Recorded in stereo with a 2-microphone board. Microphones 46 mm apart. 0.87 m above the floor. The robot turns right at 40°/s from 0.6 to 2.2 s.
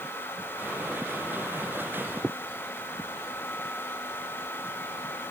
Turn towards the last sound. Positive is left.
No sound to turn to.